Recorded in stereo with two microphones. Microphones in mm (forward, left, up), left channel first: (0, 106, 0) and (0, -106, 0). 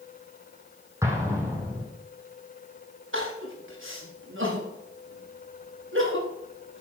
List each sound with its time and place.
1.0 s an explosion: 10° right (ahead or behind), 4 m
3.1 s crying: 70° right (ahead or behind), 6.5 m